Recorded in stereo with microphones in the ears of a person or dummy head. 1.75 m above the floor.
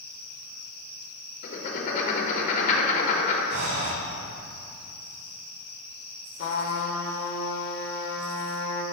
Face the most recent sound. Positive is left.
turn(degrees=55)  # may be behind; listen again after turning